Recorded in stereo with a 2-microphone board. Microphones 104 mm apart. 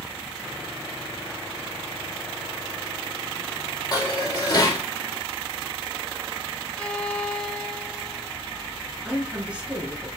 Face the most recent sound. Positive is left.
turn(degrees=-10)  # may be behind; listen again after turning